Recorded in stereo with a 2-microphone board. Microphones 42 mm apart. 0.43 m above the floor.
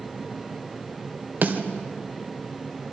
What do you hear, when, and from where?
1.4 s a snare drum: 50° right (ahead or behind), 2 m